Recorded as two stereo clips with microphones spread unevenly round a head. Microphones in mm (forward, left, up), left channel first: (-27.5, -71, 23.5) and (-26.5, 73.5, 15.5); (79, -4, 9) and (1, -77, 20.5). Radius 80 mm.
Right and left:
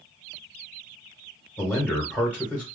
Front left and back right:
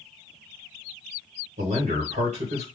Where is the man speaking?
170° right, 1.5 m.